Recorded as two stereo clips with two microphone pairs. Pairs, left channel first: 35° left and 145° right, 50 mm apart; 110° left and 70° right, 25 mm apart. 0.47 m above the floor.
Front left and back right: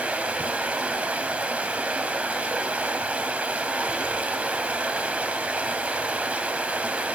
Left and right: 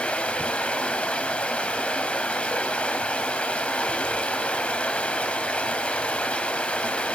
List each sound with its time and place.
0.0 s running water: 145° left, 1.1 m